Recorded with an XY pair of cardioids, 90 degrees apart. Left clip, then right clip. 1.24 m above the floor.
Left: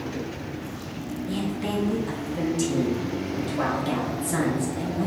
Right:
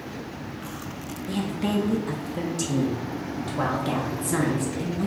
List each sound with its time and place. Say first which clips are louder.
1.3 s a woman speaking: right 2 dB; 25° right, 0.7 m